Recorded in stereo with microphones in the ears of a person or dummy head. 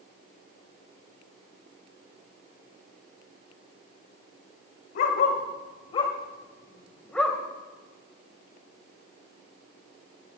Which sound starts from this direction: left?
A dog barking, at 5.0 s.